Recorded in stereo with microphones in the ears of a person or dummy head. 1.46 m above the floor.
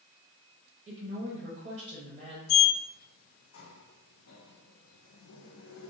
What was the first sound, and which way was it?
A woman speaking, 45° right (ahead or behind).